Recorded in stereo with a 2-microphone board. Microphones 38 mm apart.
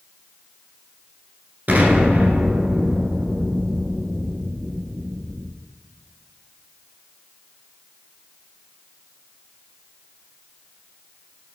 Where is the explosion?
45° right (ahead or behind), 1.3 m.